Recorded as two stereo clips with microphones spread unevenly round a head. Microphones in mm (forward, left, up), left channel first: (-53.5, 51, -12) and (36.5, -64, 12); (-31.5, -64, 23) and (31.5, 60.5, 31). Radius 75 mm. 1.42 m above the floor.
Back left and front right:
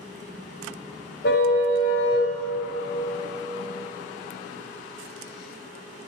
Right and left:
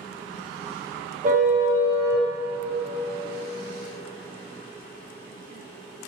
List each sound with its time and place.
1.2 s a car horn: 100° left, 3.5 m; by 2.3 s 115° left, 3.5 m